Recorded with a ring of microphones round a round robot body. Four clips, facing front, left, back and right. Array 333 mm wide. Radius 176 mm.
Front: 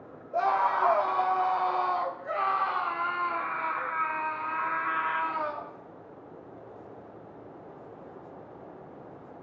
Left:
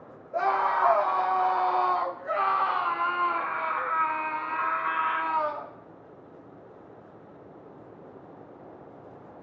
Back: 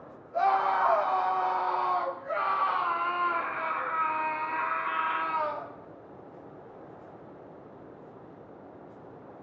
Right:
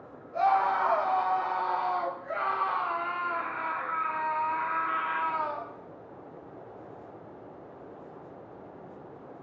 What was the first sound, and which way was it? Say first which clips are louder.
A scream: even, even; 45° left.